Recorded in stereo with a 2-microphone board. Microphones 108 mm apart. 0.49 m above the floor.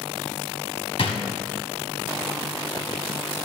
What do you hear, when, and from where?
1.0 s a drawer: 55° left (ahead or behind), 1.1 m